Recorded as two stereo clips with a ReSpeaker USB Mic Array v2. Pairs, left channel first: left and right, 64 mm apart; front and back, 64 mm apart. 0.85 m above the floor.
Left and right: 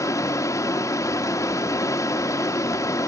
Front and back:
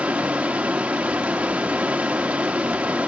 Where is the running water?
110° left, 1.3 m.